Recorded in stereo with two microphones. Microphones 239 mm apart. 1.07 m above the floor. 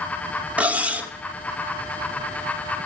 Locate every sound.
0.6 s cutlery clinking: 5° right (ahead or behind), 0.6 m